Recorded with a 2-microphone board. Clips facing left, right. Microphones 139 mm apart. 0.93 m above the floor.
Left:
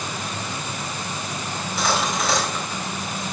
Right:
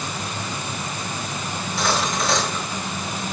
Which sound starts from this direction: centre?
Cutlery clinking, at 1.6 s.